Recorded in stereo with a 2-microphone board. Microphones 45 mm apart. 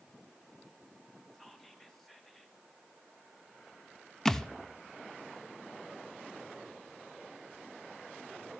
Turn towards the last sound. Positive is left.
turn(degrees=10)  # may be behind; listen again after turning